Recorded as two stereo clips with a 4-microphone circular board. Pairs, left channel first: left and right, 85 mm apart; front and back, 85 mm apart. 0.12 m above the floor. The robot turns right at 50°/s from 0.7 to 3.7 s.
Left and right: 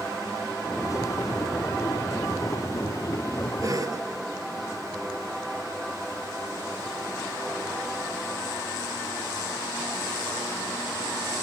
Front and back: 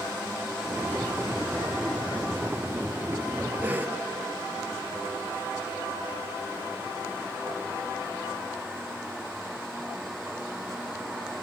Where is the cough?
120° right, 2.5 m.